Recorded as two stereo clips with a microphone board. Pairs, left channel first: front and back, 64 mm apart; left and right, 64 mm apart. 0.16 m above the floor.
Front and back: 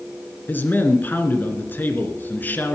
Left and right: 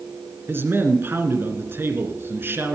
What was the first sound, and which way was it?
A man speaking, 50° right.